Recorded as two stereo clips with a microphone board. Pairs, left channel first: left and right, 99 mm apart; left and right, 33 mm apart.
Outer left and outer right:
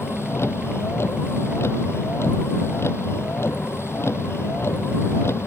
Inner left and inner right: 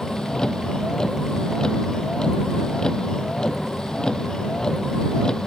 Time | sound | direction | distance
0.0 | a vehicle | 25° left (ahead or behind) | ?